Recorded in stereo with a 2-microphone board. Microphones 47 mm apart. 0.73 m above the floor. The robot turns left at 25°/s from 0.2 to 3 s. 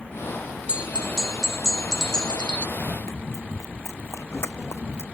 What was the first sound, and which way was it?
A bell, 160° right.